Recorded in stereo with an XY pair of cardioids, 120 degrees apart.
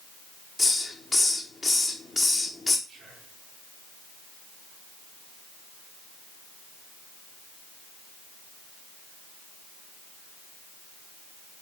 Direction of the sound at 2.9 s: 30° right.